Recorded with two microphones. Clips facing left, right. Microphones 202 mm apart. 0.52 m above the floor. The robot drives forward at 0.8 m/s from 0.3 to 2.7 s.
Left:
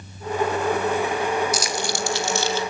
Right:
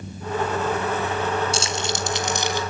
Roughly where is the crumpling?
Right.